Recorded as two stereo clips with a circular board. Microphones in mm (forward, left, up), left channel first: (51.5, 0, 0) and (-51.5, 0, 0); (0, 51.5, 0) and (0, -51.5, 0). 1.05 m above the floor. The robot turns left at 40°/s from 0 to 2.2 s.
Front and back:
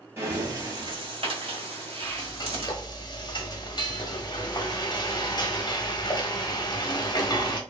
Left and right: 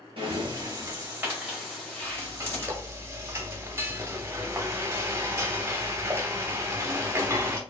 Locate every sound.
0.2 s breathing: 120° right, 2.0 m; by 2.7 s 160° left, 2.0 m
2.0 s frying: 25° right, 0.9 m; by 7.6 s 30° right, 0.9 m